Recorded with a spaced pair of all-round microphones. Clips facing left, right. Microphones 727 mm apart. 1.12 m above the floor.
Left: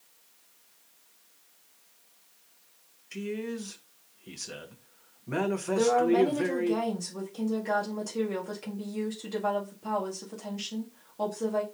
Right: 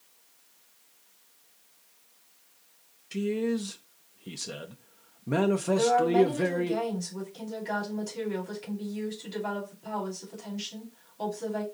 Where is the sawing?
No sawing in this recording.